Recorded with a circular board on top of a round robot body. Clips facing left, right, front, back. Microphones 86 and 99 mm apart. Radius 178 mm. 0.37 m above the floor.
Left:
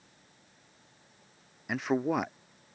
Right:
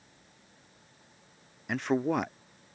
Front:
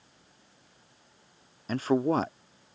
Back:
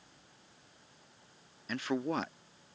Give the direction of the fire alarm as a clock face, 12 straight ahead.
No fire alarm in this recording.